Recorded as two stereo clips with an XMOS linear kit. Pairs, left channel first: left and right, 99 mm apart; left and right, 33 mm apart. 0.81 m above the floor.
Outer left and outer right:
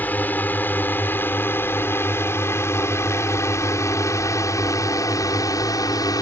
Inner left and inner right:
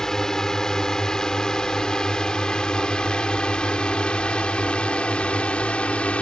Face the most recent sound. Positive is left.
turn(degrees=40)  # may be behind; listen again after turning